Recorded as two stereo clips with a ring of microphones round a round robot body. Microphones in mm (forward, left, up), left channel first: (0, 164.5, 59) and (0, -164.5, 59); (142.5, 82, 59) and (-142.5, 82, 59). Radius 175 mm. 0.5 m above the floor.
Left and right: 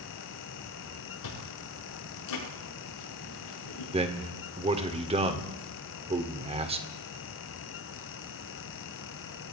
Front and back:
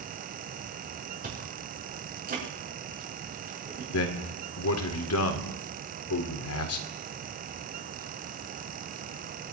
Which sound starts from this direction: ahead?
A man speaking, at 3.9 s.